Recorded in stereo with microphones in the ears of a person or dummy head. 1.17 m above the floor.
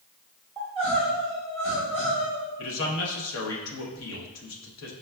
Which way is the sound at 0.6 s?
10° left (ahead or behind).